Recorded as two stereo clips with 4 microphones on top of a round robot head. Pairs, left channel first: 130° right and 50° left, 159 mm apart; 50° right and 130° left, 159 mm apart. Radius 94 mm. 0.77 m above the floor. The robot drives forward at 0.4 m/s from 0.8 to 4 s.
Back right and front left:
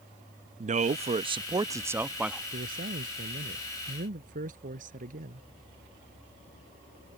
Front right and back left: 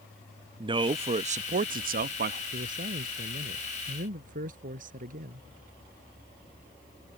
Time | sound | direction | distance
0.6 | a man speaking | 80° left | ?
2.5 | a man speaking | 85° left | ?